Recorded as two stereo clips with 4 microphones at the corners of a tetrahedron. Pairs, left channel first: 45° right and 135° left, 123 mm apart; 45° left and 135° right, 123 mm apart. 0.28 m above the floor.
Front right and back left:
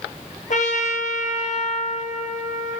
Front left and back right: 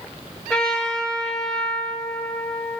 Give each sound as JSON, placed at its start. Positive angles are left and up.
{"t": 0.5, "sound": "a trumpet", "azimuth_deg": -40, "distance_m": 0.9}